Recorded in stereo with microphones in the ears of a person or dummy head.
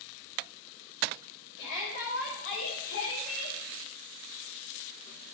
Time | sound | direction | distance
1.6 | a shout | 75° left (ahead or behind) | 6.5 m